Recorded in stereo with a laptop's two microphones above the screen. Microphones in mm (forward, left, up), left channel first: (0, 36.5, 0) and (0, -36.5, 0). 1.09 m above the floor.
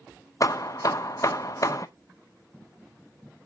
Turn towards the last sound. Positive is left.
turn(degrees=50)  # may be behind; listen again after turning